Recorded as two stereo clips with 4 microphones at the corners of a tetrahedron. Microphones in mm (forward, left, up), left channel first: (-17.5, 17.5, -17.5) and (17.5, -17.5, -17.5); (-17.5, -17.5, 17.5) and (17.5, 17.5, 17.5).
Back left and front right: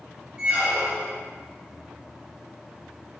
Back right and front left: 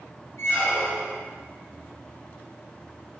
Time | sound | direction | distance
0.4 | a squeak | 110° right | 0.8 m